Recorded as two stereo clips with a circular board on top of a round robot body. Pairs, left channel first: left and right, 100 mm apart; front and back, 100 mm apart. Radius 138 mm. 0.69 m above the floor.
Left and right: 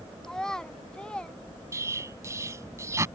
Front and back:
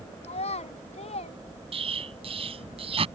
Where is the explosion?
155° right.